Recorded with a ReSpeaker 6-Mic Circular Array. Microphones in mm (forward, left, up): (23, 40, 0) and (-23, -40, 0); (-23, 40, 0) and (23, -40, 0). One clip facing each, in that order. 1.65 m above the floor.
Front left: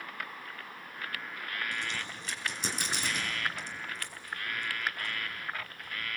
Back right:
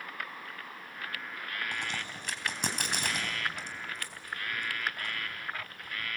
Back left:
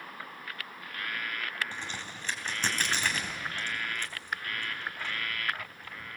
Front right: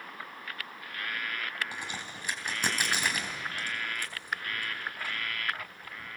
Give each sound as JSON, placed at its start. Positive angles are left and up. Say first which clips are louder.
{"t": 1.7, "sound": "a crack", "louder": "even, even", "azimuth_deg": -135, "distance_m": 3.5}